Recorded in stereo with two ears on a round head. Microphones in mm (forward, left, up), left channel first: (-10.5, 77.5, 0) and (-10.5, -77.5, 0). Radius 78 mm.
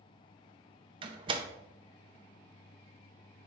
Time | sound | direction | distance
1.0 | a door slam | 30° right (ahead or behind) | 0.6 m